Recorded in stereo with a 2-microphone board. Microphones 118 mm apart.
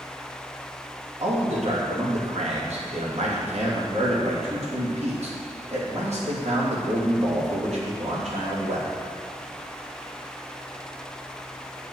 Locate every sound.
1.2 s a man speaking: 70° right (ahead or behind), 2.5 m